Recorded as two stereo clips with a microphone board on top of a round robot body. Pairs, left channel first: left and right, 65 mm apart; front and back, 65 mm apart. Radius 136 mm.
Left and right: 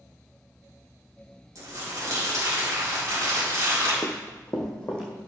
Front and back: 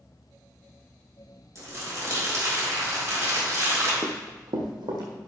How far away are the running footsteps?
About 0.7 m.